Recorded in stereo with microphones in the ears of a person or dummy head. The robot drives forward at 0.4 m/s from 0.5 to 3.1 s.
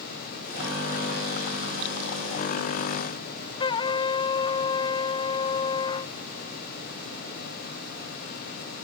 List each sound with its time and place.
3.6 s a trumpet: 25° left (ahead or behind)